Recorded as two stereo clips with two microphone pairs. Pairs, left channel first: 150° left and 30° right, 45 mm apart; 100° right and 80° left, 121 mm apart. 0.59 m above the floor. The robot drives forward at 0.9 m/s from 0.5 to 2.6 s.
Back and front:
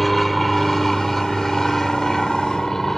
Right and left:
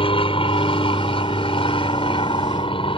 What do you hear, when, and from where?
0.0 s an aircraft: 125° right; by 3.0 s 130° right